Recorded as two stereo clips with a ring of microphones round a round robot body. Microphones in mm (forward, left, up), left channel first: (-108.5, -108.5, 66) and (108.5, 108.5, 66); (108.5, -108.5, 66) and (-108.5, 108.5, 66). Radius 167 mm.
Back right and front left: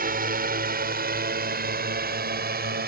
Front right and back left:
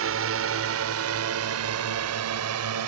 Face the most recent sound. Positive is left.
turn(degrees=105)